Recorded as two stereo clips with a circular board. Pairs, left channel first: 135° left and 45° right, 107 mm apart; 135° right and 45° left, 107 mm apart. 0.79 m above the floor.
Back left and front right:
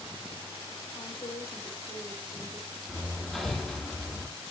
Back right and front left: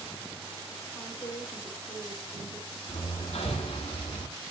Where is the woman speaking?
175° left, 5.5 m.